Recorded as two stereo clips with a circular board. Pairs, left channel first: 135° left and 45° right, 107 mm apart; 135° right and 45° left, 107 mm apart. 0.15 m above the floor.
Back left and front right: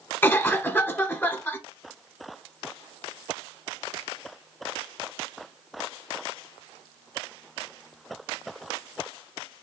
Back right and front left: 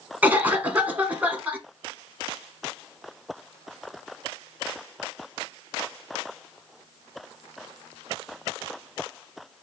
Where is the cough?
100° left, 1.1 m.